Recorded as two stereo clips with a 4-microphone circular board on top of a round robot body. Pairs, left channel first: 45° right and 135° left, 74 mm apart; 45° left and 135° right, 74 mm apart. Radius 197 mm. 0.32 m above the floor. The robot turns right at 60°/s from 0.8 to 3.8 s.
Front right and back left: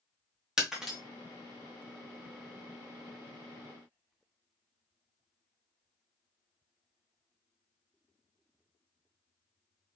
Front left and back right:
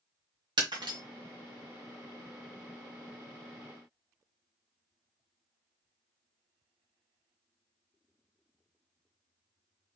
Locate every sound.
0.6 s breaking glass: 145° right, 1.9 m; by 1.0 s 130° right, 1.9 m